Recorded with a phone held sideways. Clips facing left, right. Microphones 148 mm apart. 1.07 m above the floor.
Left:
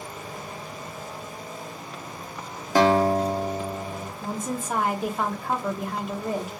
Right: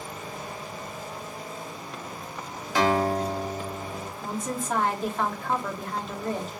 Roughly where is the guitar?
Left.